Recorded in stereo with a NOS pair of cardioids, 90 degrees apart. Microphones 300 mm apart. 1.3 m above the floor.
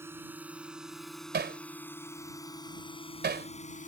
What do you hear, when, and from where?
0.0 s a drone: 5° right; by 3.9 s 25° left
1.3 s hammering: 35° right